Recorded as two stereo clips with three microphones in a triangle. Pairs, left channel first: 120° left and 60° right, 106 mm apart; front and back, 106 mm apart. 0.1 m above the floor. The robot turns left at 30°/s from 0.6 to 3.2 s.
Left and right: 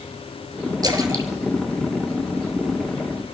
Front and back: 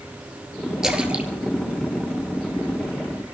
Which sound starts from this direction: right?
A splash, at 0.8 s.